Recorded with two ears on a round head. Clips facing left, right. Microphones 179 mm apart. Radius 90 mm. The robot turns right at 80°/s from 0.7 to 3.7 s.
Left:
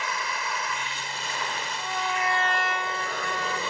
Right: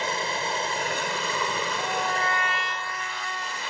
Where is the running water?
150° right; by 3.7 s 90° left.